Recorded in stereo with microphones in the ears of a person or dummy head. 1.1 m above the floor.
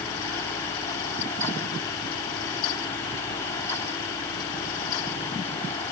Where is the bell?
I don't hear a bell.